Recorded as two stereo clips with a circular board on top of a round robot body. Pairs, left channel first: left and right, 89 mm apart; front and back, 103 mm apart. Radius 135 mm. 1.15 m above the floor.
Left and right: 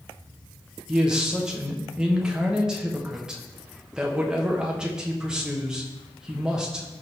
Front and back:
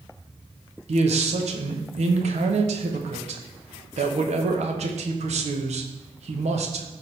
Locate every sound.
0.9 s a man speaking: 175° right, 1.1 m